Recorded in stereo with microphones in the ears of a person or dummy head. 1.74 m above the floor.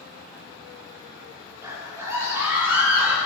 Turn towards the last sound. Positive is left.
turn(degrees=-5)  # may be behind; listen again after turning